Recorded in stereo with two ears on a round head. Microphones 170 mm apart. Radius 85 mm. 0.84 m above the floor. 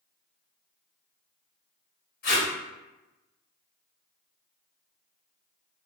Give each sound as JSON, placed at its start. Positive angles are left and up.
{"t": 2.2, "sound": "tape being pulled", "side_deg": 50, "distance_m": 1.1}